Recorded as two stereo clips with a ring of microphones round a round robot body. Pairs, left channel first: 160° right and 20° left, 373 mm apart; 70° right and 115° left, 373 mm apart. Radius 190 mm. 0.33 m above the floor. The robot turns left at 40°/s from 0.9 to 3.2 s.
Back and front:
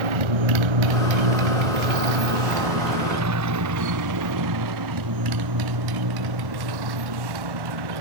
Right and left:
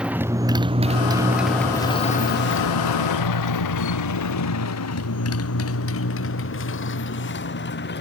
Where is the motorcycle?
25° left; by 8.0 s 5° right.